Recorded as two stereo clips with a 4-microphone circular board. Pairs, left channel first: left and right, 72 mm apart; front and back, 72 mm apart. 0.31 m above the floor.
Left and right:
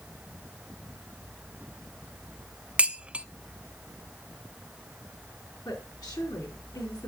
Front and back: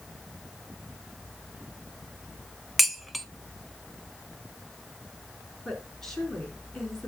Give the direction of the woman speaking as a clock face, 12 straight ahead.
9 o'clock.